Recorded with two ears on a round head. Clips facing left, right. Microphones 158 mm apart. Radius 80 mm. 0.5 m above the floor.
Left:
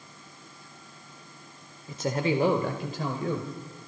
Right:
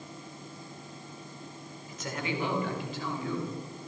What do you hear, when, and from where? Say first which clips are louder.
1.9 s a man speaking: left 8 dB; 25° left (ahead or behind), 1.7 m; by 3.5 s 40° left (ahead or behind), 2.5 m